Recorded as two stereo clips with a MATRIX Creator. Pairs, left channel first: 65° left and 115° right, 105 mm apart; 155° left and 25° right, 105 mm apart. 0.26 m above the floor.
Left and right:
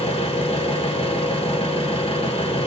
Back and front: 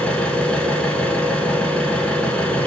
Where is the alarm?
I don't hear an alarm.